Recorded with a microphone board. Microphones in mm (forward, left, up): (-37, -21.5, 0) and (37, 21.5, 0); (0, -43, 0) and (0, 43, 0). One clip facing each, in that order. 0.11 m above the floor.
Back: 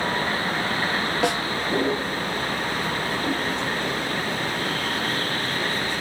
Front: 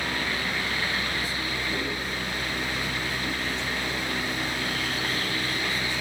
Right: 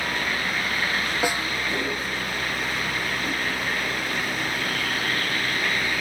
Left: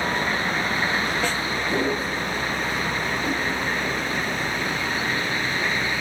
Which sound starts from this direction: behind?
A snare drum, at 1.2 s.